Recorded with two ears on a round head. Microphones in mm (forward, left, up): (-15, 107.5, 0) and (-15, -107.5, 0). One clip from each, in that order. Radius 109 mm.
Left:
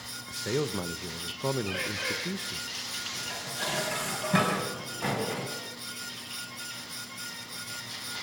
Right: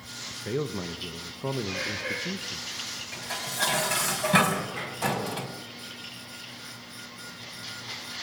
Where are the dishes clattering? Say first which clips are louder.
Right 2 dB; 30° right (ahead or behind), 4.5 m.